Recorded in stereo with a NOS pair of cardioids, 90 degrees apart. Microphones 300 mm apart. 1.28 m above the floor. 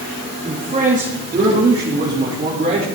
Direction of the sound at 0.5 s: 20° right.